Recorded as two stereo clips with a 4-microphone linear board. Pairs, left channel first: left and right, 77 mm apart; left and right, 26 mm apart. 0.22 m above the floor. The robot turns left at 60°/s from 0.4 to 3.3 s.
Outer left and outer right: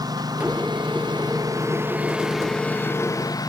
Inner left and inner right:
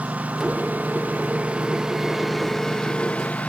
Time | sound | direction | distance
0.0 | a lawn mower | 60° right | ?